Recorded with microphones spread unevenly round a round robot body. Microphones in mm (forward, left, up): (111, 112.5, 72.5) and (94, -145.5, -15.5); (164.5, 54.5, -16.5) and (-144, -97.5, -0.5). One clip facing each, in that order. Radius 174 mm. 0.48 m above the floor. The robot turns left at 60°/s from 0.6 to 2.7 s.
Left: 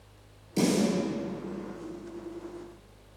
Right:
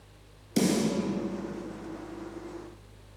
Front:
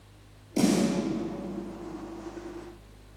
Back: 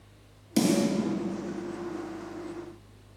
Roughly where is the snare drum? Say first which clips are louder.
Even, even; right.